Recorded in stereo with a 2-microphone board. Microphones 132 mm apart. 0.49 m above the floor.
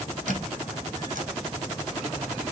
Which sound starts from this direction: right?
A squeak, at 0.3 s.